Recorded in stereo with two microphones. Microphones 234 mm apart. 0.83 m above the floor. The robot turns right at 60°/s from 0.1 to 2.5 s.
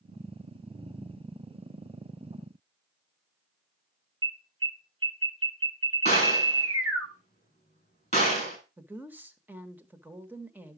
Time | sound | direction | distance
4.2 | an alarm | 65° right (ahead or behind) | 2.5 m
6.0 | a gunshot | 25° left (ahead or behind) | 6 m
8.8 | a woman speaking | 5° right (ahead or behind) | 1.0 m